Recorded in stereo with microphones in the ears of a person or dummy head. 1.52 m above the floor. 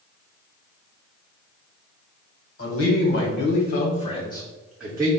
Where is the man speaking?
85° left, 1.4 m; by 5.1 s 15° right (ahead or behind), 0.8 m.